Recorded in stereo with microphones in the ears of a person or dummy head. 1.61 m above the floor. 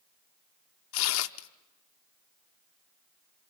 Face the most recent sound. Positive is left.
turn(degrees=75)  # may be behind; listen again after turning